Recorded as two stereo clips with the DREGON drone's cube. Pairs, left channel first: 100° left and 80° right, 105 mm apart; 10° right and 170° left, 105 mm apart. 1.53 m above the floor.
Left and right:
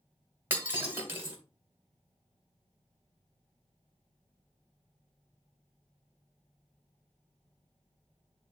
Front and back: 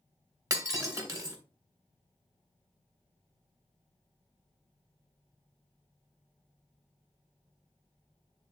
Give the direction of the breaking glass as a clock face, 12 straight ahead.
5 o'clock.